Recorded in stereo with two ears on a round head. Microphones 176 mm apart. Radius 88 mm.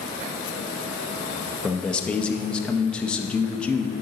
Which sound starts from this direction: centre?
A man speaking, at 1.6 s.